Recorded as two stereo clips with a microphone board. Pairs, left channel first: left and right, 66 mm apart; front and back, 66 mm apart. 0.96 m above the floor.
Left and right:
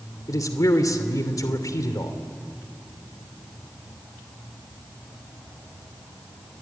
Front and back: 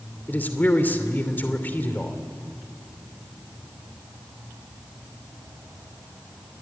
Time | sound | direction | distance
0.3 | a man speaking | 60° left | 2.5 m